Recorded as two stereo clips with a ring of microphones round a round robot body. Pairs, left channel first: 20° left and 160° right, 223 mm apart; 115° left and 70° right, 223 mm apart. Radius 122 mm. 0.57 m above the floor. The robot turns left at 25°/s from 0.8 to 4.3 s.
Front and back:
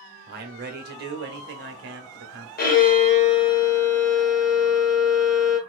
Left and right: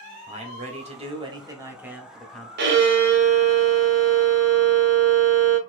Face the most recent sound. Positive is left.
turn(degrees=-70)